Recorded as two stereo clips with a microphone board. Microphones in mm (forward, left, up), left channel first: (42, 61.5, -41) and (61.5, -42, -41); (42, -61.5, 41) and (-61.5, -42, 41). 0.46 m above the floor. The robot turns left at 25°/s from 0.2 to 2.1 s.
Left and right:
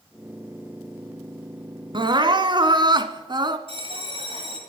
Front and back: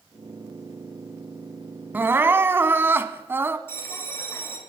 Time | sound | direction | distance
1.9 | crying | 115° right | 0.8 m
3.7 | a bell | 75° right | 2.5 m